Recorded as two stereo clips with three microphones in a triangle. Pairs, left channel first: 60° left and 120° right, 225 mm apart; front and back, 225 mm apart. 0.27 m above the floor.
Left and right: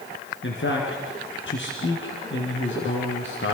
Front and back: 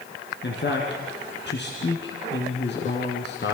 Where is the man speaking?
35° left, 3.5 m.